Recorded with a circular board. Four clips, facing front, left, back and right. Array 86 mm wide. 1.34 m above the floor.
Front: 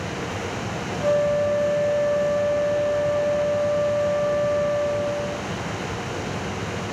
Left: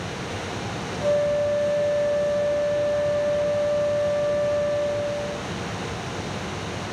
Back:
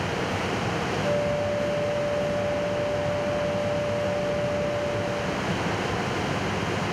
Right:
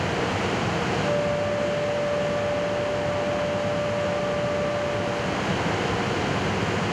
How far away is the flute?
About 2.5 m.